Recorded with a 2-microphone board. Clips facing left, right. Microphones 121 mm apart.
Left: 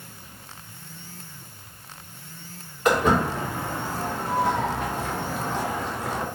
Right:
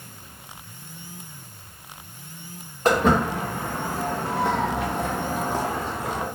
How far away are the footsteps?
About 1.7 m.